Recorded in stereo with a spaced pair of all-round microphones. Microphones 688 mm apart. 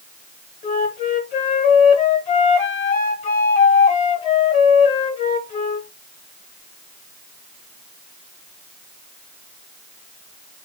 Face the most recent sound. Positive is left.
turn(degrees=65)  # may be behind; listen again after turning